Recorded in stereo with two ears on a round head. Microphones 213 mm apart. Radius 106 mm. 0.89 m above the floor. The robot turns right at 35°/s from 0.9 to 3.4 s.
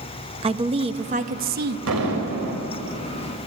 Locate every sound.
0.4 s a woman speaking: 150° right, 0.9 m; by 1.8 s 120° right, 0.9 m
1.9 s an explosion: 70° right (ahead or behind), 4.5 m; by 2.6 s 45° right (ahead or behind), 4.5 m